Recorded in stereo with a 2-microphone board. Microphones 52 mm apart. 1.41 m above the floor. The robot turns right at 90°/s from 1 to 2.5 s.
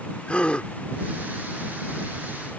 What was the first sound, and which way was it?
A gasp, 20° left (ahead or behind).